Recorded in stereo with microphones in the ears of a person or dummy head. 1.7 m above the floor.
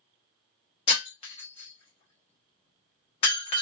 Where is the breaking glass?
25° left (ahead or behind), 1.2 m.